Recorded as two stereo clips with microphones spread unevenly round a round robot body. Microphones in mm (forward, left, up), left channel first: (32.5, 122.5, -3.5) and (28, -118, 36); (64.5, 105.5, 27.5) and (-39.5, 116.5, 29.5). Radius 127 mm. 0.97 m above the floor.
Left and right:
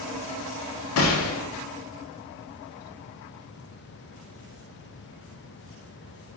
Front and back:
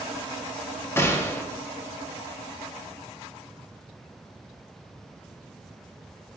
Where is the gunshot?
60° left, 0.6 m.